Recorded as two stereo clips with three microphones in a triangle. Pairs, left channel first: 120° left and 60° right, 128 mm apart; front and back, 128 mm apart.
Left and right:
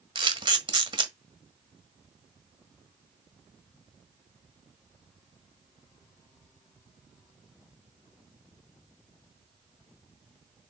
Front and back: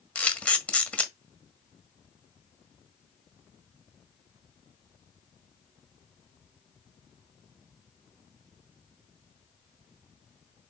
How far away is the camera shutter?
About 1.5 m.